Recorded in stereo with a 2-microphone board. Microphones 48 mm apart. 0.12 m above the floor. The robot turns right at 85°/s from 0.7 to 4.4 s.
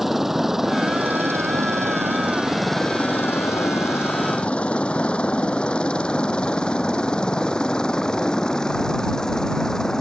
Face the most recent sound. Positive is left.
turn(degrees=15)  # may be behind; listen again after turning